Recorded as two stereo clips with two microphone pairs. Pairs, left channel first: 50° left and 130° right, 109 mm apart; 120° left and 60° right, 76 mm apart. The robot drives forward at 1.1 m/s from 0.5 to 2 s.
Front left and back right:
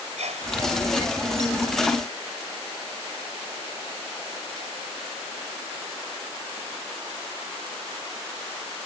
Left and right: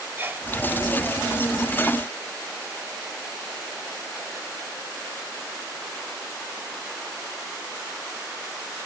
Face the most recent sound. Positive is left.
turn(degrees=-135)